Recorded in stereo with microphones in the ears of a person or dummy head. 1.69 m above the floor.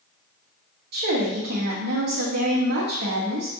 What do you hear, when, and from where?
0.9 s a woman speaking: 55° right (ahead or behind), 1.0 m